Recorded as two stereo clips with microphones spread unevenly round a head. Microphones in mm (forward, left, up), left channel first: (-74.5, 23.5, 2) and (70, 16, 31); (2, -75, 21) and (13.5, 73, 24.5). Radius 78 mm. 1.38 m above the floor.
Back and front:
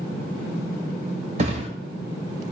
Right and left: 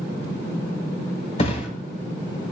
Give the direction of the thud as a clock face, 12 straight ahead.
2 o'clock.